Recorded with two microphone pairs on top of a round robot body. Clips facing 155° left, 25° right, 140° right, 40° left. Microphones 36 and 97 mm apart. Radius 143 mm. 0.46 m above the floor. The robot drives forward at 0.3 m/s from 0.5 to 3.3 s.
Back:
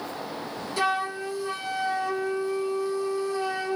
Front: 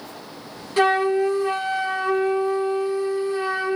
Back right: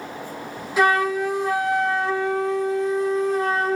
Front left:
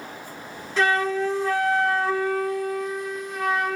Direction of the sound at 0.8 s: 50° right.